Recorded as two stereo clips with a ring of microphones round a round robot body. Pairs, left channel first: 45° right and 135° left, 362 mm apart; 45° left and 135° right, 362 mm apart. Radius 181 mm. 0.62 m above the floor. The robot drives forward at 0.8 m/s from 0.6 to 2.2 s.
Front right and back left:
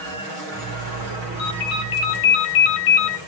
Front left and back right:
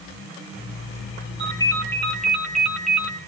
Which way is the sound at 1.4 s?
35° right.